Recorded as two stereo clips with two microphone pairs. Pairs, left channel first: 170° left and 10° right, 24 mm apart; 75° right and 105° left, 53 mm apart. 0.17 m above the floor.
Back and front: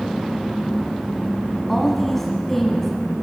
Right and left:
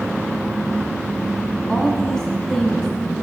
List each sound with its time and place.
1.7 s a woman speaking: 125° right, 1.2 m